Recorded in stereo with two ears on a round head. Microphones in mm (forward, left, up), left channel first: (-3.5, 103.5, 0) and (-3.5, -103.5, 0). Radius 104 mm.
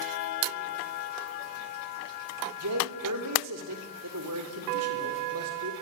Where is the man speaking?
80° right, 4 m; by 5.7 s 65° right (ahead or behind), 4.5 m.